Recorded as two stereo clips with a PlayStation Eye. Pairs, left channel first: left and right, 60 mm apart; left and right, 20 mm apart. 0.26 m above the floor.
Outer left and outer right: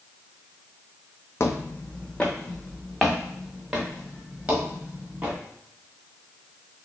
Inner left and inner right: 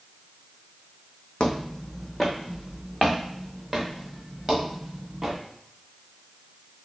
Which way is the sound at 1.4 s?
50° left (ahead or behind).